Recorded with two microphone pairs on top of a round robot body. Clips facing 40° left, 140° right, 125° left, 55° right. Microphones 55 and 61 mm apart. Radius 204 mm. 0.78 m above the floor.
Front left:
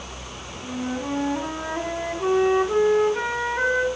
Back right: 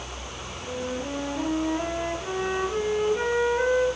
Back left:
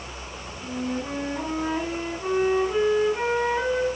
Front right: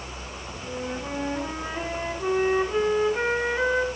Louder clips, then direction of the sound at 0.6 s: Front left 3 dB, back left 3 dB; 25° left.